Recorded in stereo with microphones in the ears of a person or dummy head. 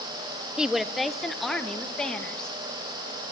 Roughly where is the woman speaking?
Centre.